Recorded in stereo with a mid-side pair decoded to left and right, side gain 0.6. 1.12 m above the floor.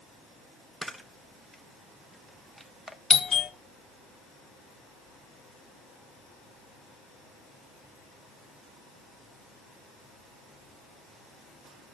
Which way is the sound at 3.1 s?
20° left.